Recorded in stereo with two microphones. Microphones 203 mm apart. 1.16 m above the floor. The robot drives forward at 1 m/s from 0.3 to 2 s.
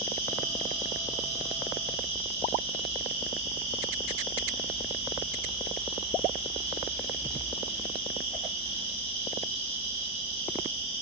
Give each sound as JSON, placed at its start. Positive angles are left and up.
{"t": 0.0, "sound": "an insect", "side_deg": 50, "distance_m": 2.5}